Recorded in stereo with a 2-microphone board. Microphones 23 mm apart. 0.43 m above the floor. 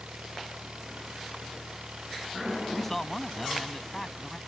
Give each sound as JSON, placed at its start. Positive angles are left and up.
{"t": 0.0, "sound": "an engine running", "side_deg": -75}
{"t": 2.7, "sound": "a man speaking", "side_deg": 10}